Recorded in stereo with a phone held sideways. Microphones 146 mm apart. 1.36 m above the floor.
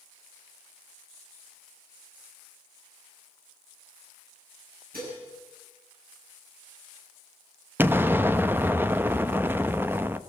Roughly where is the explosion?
Centre.